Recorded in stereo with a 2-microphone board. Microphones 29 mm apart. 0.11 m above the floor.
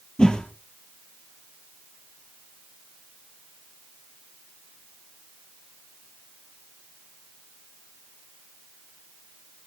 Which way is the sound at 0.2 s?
30° left (ahead or behind).